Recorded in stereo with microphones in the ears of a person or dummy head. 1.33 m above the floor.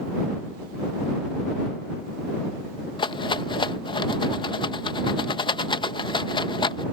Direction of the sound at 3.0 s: 30° left (ahead or behind).